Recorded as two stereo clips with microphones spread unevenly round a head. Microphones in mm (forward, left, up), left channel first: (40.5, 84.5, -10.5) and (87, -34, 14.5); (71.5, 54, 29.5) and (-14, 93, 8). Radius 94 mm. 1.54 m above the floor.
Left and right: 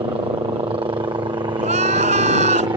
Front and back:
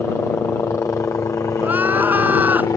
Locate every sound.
0.0 s a helicopter: 75° right; by 2.8 s 45° right
1.6 s crying: 120° right